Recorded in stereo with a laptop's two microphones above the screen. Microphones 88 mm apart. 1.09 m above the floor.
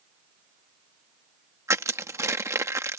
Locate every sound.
1.7 s crushing: 30° right (ahead or behind)